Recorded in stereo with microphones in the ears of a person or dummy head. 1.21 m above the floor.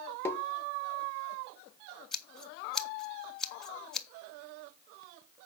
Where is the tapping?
15° left (ahead or behind), 0.7 m.